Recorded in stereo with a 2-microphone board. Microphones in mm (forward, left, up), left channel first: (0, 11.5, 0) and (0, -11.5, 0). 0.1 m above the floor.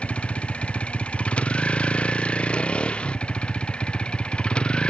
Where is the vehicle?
65° left (ahead or behind); by 4.9 s 50° left (ahead or behind).